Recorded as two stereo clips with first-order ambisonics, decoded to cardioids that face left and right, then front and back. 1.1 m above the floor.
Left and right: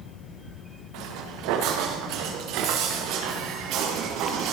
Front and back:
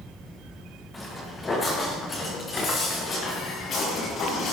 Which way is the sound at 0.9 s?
80° right.